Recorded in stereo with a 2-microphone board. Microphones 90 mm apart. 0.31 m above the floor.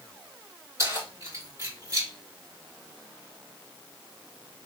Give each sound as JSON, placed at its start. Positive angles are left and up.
{"t": 0.8, "sound": "keys jangling", "side_deg": -35, "distance_m": 3.0}